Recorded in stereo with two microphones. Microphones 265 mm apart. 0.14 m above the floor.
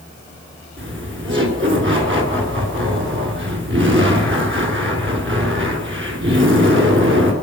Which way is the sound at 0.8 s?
45° right (ahead or behind).